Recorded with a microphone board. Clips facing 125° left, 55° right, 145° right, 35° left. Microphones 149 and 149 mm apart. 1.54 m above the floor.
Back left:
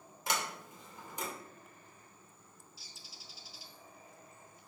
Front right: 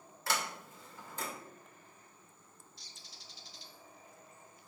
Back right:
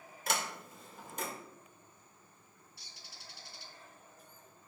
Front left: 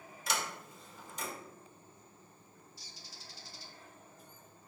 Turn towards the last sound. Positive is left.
turn(degrees=-150)